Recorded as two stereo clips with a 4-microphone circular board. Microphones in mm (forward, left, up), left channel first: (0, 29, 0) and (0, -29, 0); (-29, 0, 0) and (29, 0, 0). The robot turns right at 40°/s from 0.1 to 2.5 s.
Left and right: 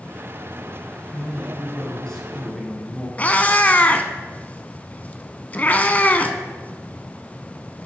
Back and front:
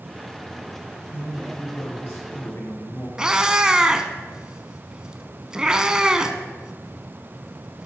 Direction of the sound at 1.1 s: 125° left.